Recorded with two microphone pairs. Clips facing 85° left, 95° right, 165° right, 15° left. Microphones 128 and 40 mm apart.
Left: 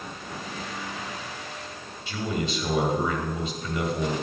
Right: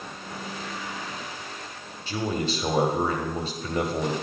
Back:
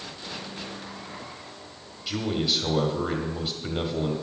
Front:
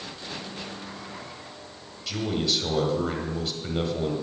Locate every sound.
2.1 s a man speaking: 90° right, 1.6 m